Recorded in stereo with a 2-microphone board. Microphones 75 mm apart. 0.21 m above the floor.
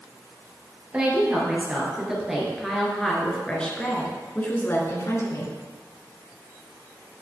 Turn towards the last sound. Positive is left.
turn(degrees=45)  # may be behind; listen again after turning